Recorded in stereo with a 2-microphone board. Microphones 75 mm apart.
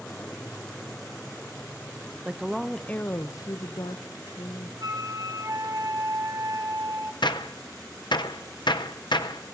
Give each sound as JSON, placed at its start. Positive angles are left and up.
{"t": 2.2, "sound": "a woman speaking", "side_deg": -15, "distance_m": 0.6}
{"t": 4.8, "sound": "a flute", "side_deg": -50, "distance_m": 1.1}
{"t": 7.2, "sound": "a gunshot", "side_deg": 75, "distance_m": 0.6}